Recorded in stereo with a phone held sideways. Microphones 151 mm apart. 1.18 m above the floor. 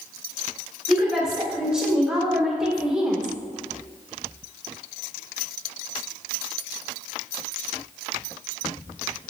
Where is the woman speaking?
5° right (ahead or behind), 5 m.